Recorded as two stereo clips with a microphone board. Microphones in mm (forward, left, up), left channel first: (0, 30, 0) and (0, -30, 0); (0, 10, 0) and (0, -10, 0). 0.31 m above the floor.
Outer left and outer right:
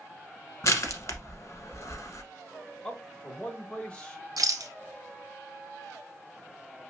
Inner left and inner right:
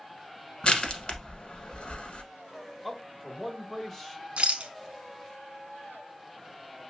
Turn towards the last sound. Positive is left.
turn(degrees=-90)